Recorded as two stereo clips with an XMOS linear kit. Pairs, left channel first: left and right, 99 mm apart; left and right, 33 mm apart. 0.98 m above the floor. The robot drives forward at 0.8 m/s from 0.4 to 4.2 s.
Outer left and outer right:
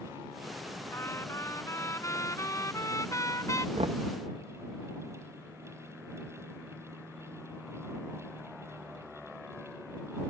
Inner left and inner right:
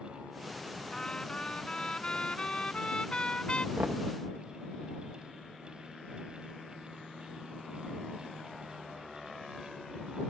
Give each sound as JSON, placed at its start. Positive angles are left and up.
{"t": 0.9, "sound": "a trumpet", "side_deg": 25}
{"t": 3.8, "sound": "knocking", "side_deg": -75}